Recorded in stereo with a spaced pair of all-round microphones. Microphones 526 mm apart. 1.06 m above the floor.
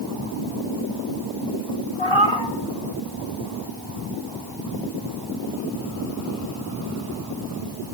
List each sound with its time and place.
2.0 s a cat meowing: 65° left (ahead or behind), 2.5 m